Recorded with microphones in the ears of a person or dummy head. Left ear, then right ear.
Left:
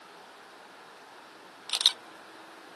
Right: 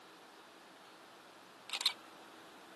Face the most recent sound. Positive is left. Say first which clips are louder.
# left 11 dB
turn(degrees=25)  # may be behind; listen again after turning